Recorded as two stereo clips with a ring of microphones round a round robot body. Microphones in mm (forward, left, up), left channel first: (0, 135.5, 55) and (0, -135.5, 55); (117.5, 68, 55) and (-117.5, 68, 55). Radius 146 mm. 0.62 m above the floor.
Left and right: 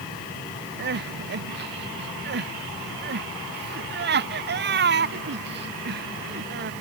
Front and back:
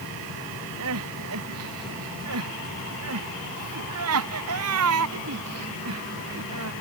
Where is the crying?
145° right.